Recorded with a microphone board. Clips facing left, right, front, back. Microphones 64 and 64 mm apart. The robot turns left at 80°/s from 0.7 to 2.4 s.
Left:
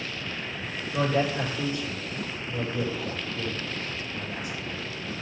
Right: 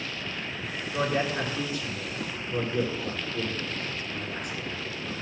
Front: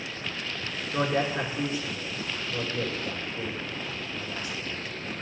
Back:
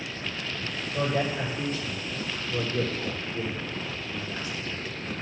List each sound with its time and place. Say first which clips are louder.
0.9 s a man speaking: left 2 dB, front 1 dB; straight ahead, 5.5 m; by 5.2 s 120° right, 5.5 m